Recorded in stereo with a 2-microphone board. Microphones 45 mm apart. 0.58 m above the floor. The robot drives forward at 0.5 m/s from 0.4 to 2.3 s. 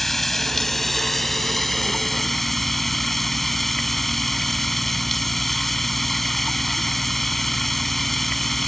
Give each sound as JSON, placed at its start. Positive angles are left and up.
{"t": 0.0, "sound": "running water", "side_deg": 5}